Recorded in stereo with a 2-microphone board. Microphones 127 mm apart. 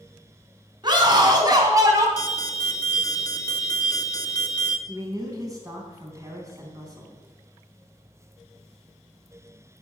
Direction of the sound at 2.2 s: 30° left (ahead or behind).